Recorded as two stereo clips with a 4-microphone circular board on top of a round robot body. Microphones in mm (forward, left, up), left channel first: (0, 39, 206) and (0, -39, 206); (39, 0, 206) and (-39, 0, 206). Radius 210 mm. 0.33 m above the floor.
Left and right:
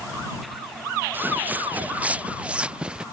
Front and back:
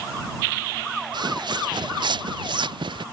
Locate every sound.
1.1 s footsteps: 155° right; by 3.0 s 170° right